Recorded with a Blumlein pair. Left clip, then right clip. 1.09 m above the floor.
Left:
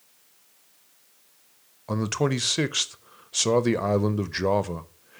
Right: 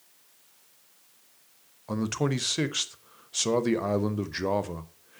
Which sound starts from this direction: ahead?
A man speaking, at 1.9 s.